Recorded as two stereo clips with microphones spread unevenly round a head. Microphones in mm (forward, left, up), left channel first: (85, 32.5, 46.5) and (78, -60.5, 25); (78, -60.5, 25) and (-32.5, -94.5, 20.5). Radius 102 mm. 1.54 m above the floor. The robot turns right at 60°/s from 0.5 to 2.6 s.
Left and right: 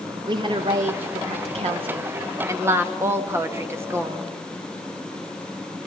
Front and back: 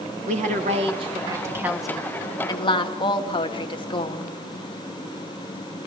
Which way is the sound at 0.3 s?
155° right.